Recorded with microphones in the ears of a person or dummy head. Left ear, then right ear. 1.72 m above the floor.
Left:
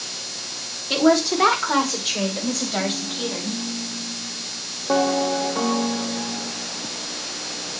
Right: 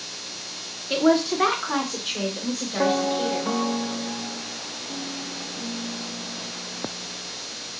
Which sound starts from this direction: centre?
A woman speaking, at 0.9 s.